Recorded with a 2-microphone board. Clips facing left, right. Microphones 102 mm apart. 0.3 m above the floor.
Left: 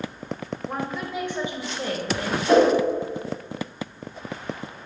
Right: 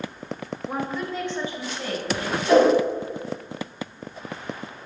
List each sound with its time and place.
0.7 s a woman speaking: 5° right (ahead or behind), 0.9 m; by 2.4 s 45° left (ahead or behind), 1.1 m
2.5 s a whoosh: 35° left (ahead or behind), 2.5 m